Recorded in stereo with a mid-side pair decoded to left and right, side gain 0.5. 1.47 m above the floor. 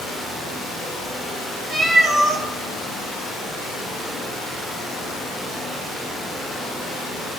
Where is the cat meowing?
55° right, 4 m.